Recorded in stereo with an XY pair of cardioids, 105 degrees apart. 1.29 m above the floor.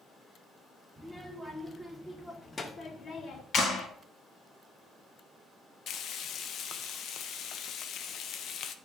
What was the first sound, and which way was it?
A child speaking, 5° right.